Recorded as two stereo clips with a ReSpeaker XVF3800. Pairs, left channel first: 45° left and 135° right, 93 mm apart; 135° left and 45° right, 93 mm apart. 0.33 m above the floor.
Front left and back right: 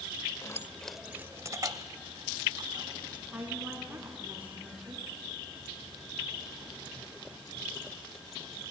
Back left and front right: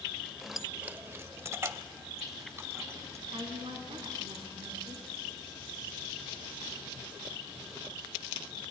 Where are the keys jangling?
45° left, 0.7 m; by 3.2 s 105° right, 2 m.